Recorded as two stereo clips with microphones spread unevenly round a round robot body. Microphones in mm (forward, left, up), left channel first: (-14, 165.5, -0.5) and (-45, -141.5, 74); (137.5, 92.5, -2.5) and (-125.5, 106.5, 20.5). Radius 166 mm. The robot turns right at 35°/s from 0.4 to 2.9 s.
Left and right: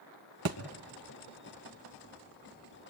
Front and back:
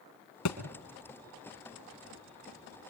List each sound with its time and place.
0.5 s a thud: 45° right, 1.6 m